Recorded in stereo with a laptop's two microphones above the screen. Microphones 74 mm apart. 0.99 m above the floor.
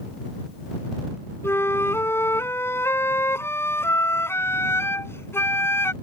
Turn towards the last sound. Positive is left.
turn(degrees=35)  # may be behind; listen again after turning